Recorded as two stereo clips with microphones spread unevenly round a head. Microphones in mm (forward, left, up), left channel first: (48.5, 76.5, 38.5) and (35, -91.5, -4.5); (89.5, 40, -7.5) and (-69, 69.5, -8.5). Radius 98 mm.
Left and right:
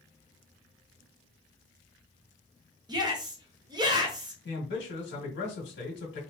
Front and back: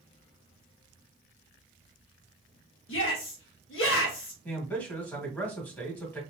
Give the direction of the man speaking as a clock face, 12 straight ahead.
10 o'clock.